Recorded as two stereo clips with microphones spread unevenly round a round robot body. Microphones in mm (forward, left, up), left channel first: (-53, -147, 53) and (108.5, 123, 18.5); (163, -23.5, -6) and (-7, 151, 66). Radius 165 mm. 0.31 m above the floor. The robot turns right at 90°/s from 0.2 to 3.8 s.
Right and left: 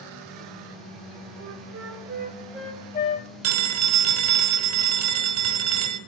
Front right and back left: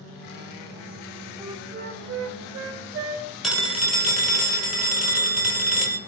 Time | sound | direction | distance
1.4 | a flute | 35° left | 0.7 m
3.4 | a phone ringing | 35° left | 1.3 m